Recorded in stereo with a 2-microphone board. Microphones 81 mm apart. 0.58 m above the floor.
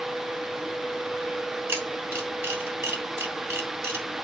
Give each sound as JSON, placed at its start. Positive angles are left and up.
{"t": 1.7, "sound": "a camera shutter", "side_deg": -30, "distance_m": 3.0}